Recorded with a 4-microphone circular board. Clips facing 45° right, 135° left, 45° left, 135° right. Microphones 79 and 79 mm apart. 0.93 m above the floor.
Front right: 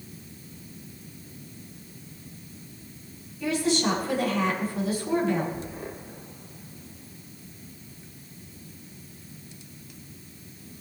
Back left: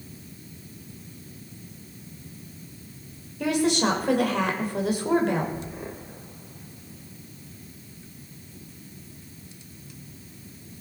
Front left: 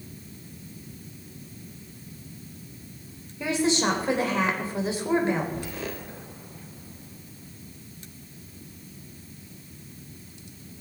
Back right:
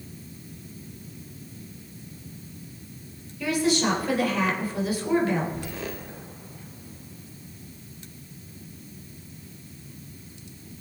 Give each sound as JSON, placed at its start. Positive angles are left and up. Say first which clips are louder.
{"t": 3.4, "sound": "a woman speaking", "louder": "back left 2 dB, back right 1 dB", "azimuth_deg": 110, "distance_m": 3.0}